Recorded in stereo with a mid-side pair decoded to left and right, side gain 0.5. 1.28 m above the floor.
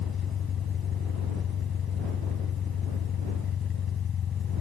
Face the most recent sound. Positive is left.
turn(degrees=50)